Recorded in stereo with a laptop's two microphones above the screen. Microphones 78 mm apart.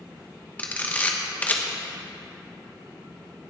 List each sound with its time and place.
0.6 s a camera shutter: 20° left (ahead or behind), 1.1 m